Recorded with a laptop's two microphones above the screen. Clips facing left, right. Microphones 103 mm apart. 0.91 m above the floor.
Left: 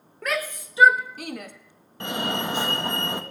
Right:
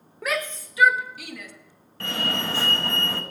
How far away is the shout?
About 1.0 m.